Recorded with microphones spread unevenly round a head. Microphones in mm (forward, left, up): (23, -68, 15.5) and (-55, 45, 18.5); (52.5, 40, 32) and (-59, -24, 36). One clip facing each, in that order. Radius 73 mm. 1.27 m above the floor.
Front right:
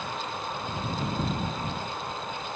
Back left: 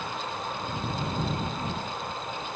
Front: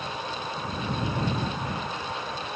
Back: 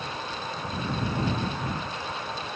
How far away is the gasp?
No gasp in this recording.